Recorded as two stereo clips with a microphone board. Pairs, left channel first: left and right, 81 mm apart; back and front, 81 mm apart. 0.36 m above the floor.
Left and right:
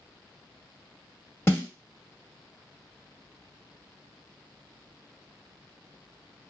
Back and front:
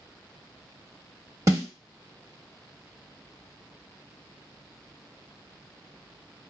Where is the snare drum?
35° left, 1.1 m.